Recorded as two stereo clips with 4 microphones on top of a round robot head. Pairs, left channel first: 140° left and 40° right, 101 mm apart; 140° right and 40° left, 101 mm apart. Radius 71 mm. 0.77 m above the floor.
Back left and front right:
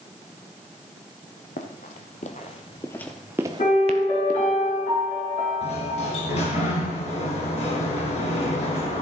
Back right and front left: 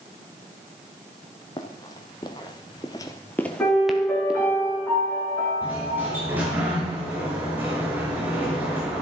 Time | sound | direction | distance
1.6 | running footsteps | 160° left | 1.6 m
3.6 | a piano | 155° left | 7 m
5.6 | a sliding door | 115° left | 4 m